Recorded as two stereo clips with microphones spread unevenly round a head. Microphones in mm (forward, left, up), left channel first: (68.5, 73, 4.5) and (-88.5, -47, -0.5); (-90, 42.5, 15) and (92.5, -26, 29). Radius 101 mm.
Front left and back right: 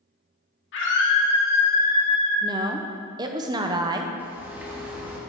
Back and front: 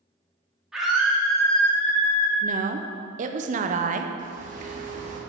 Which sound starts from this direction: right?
A woman speaking, at 2.4 s.